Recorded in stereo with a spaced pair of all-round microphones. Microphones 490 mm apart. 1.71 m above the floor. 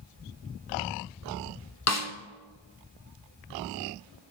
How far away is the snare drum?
About 0.9 m.